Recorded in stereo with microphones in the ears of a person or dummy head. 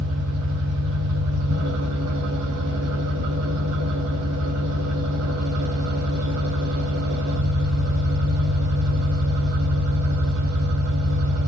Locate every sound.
0.0 s an engine running: 80° right, 6.5 m